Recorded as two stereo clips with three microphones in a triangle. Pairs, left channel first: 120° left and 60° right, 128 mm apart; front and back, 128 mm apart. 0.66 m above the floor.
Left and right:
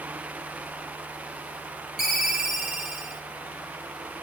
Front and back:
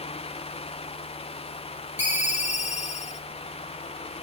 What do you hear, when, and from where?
2.0 s a ringtone: 25° left, 0.8 m